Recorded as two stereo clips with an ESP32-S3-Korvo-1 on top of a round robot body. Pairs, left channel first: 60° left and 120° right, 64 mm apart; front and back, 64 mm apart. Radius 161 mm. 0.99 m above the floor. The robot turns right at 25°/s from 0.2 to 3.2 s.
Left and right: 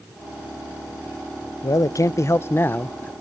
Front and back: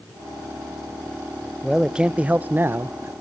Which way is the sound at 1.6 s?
95° left.